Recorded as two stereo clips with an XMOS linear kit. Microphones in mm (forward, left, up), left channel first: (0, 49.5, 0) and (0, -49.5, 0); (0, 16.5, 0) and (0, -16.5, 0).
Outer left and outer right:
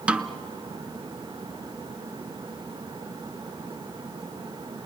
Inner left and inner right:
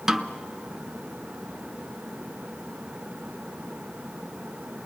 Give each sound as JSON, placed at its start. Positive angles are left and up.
{"t": 0.1, "sound": "a snare drum", "side_deg": -10, "distance_m": 0.8}